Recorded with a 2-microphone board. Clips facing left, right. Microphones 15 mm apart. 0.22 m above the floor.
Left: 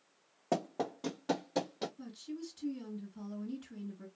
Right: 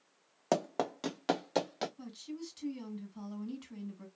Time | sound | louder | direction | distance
0.5 | running footsteps | right 3 dB | 70° right (ahead or behind) | 1.0 m
2.0 | a woman speaking | even | 40° right (ahead or behind) | 2 m